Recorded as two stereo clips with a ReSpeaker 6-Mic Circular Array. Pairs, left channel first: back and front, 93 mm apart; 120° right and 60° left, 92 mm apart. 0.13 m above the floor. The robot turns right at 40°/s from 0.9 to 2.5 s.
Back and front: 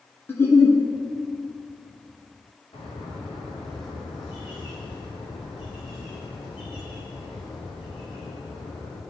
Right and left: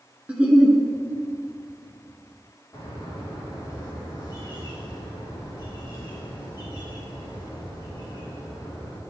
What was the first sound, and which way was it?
A giggle, 130° left.